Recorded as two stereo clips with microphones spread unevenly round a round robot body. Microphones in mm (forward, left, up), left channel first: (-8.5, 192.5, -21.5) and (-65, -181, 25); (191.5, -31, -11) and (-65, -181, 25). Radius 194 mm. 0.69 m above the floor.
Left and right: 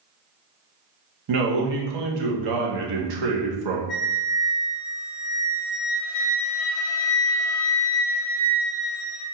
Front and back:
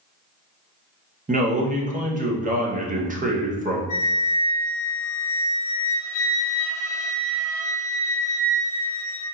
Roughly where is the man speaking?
Right.